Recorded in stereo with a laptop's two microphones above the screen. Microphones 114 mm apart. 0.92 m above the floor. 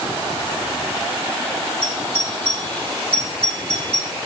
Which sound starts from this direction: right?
A doorbell, at 1.8 s.